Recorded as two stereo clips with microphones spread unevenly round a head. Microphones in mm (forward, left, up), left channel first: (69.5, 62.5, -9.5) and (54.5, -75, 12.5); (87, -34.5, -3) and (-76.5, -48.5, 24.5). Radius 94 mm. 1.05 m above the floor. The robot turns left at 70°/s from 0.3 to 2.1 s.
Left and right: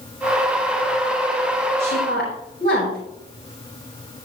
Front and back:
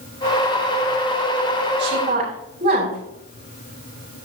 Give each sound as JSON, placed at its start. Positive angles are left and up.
{"t": 1.8, "sound": "a woman speaking", "azimuth_deg": 145, "distance_m": 7.5}